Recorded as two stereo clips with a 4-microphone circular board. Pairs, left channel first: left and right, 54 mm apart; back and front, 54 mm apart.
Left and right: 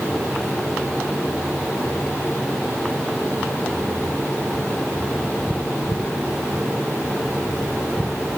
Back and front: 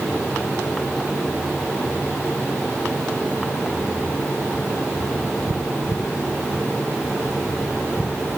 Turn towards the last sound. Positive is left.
No sound to turn to.